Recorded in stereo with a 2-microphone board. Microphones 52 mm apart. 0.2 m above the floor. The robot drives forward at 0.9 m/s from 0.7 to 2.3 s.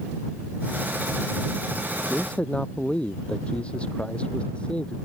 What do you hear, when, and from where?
2.1 s a man speaking: 25° left (ahead or behind); by 5.0 s 20° left (ahead or behind)